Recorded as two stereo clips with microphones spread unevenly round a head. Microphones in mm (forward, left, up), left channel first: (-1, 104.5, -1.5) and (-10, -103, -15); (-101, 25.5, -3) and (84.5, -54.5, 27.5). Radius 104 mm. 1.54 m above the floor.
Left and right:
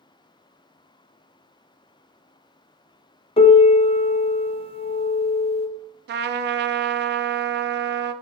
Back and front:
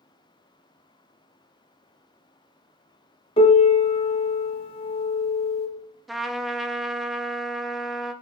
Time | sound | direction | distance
3.4 | a piano | 100° left | 0.8 m
6.1 | a trumpet | 105° right | 0.6 m